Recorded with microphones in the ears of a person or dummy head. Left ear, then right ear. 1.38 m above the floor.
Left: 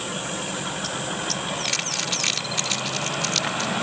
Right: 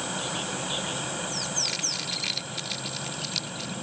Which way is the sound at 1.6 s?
45° left (ahead or behind).